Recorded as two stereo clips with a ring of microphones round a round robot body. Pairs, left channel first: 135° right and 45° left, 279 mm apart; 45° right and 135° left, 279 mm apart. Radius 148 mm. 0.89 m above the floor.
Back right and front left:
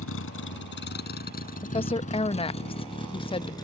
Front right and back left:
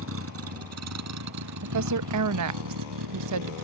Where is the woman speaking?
155° left.